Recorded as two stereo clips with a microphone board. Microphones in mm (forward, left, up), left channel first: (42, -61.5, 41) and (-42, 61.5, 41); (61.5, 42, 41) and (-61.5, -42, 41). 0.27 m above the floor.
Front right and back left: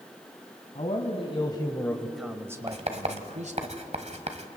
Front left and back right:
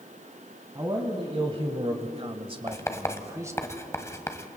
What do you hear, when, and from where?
0.8 s a man speaking: 90° right, 1.9 m; by 3.7 s 145° left, 1.8 m
2.7 s writing: 100° left, 1.4 m